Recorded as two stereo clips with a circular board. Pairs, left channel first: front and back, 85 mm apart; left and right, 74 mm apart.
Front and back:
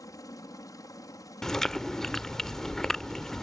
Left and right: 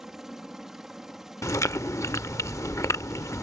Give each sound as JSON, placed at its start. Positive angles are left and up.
{"t": 0.0, "sound": "a helicopter", "azimuth_deg": -10}
{"t": 1.4, "sound": "chewing", "azimuth_deg": 80}